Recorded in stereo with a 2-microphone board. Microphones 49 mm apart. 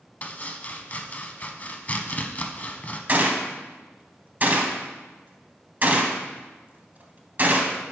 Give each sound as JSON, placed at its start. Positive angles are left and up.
{"t": 0.2, "sound": "chopping", "side_deg": 35, "distance_m": 0.5}
{"t": 3.1, "sound": "a gunshot", "side_deg": -40, "distance_m": 0.7}